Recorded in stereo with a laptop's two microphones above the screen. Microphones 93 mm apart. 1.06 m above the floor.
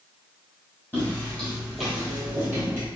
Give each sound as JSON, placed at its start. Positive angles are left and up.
{"t": 0.9, "sound": "footsteps", "side_deg": 20, "distance_m": 1.6}